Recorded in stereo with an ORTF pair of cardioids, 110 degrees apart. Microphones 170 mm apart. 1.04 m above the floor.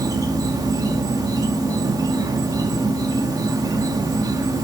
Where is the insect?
20° right, 1.8 m.